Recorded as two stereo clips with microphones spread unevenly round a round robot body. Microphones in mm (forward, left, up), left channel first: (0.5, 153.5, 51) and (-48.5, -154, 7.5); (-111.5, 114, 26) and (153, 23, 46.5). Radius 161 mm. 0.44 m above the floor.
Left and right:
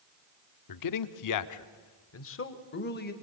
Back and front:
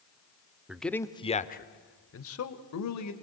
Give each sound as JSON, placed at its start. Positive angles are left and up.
{"t": 0.7, "sound": "a man speaking", "azimuth_deg": 70, "distance_m": 1.0}